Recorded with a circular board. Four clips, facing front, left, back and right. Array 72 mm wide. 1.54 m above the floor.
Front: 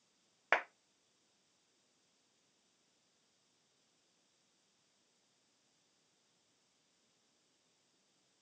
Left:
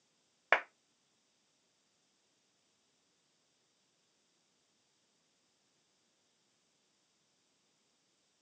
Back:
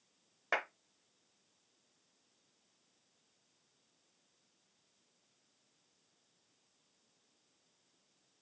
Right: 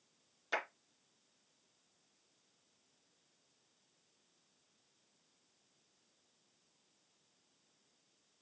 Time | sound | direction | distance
0.5 | a clap | 70° left | 0.9 m